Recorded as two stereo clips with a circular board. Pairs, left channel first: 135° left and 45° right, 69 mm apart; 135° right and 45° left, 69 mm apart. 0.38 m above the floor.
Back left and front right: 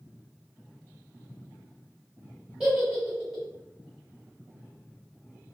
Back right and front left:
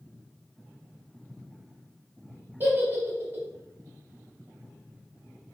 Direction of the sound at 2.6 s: 30° left.